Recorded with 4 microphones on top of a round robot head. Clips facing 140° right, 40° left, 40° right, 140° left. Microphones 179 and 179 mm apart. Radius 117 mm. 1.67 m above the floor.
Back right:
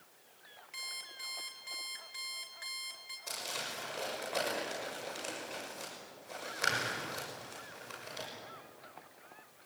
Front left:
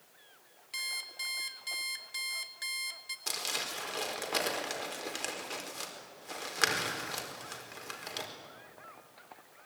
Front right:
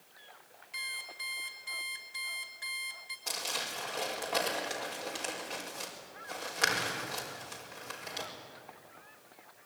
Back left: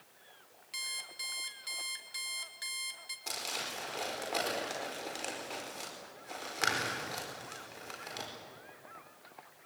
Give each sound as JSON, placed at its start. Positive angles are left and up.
{"t": 0.7, "sound": "an alarm clock", "azimuth_deg": 90, "distance_m": 1.8}
{"t": 3.3, "sound": "crumpling", "azimuth_deg": 55, "distance_m": 5.0}